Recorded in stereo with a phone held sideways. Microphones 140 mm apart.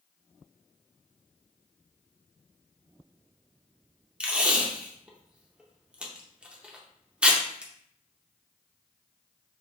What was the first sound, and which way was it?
Tape being pulled, 10° right (ahead or behind).